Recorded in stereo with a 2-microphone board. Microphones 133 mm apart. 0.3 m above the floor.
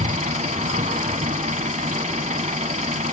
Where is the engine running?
65° right (ahead or behind), 0.7 m.